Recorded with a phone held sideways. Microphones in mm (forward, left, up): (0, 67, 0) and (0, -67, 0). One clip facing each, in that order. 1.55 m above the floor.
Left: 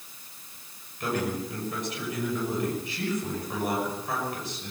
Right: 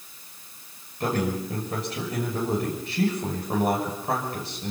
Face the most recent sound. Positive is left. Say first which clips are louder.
# right 3 dB
turn(degrees=-35)  # may be behind; listen again after turning